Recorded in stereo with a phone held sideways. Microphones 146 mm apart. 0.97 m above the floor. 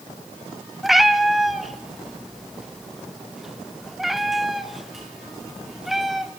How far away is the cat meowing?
About 1.3 m.